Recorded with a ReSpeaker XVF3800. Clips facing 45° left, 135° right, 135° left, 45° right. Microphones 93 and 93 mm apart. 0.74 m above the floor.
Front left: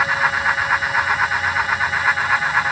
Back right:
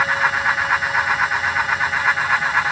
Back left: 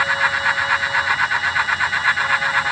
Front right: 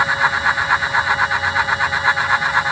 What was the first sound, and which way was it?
Only background noise.